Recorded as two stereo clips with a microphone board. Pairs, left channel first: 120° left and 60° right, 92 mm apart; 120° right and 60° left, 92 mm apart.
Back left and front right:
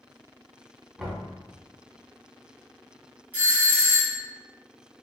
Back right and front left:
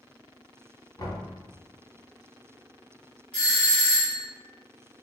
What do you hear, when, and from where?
1.0 s knocking: 145° right, 1.2 m
3.3 s a doorbell: 70° right, 1.7 m